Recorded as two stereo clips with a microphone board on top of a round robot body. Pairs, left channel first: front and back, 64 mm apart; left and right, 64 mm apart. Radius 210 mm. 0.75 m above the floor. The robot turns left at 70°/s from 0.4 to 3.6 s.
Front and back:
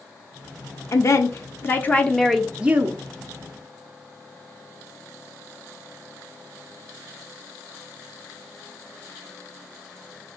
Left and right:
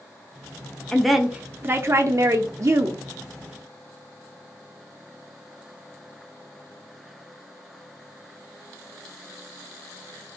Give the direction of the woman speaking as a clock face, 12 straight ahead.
12 o'clock.